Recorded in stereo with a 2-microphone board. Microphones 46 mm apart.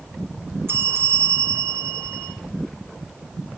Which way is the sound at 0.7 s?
65° right (ahead or behind).